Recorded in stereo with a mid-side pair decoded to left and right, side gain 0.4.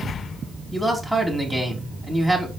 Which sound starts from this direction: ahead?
A man speaking, at 0.7 s.